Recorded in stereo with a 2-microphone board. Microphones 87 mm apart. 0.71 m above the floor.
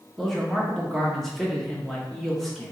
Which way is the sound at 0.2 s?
5° left (ahead or behind).